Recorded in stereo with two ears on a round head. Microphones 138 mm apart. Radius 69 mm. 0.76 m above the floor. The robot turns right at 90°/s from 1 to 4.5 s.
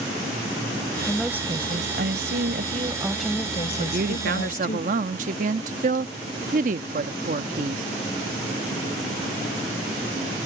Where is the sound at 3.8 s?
125° right; by 7.8 s 65° right.